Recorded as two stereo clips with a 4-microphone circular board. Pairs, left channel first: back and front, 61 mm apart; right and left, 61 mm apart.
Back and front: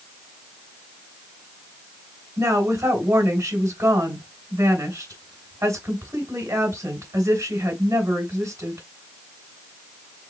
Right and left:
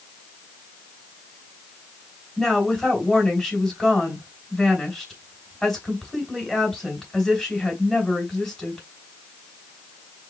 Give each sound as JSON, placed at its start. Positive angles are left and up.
{"t": 2.4, "sound": "a woman speaking", "azimuth_deg": -5, "distance_m": 2.0}